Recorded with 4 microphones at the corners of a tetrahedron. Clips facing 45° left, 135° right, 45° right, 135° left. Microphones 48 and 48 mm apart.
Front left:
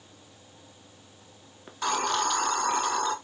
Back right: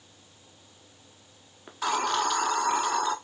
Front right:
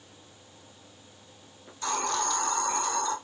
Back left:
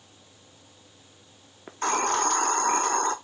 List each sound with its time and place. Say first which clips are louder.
1.7 s a hiss: even, back left 5 dB; 140° left, 0.6 m